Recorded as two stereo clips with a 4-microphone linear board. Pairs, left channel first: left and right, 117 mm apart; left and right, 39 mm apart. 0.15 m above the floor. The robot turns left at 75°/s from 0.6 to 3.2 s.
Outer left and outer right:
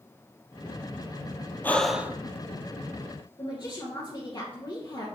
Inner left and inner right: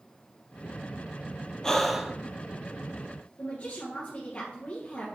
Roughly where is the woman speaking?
Left.